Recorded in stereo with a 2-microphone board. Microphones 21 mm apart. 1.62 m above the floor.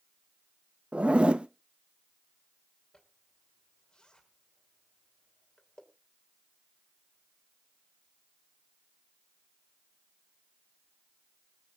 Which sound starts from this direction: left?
A zipper, at 2.9 s.